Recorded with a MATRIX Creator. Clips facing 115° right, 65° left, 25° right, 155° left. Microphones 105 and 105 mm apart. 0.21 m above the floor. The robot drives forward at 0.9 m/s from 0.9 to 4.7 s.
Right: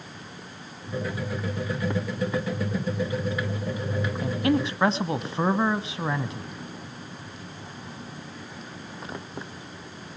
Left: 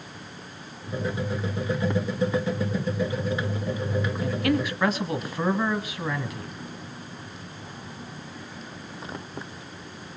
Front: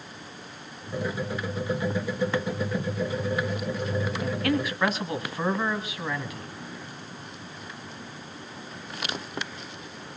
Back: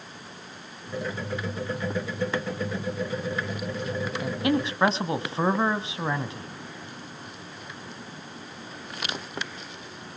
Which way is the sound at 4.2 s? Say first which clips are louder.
Right 2 dB, back 3 dB; 135° right.